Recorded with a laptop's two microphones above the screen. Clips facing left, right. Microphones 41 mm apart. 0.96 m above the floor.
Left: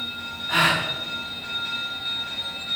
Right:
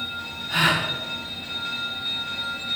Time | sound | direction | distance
0.5 | a gasp | 70° left (ahead or behind) | 1.0 m